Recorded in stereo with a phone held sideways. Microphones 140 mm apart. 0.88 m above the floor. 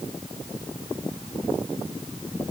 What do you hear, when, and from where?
Only background noise.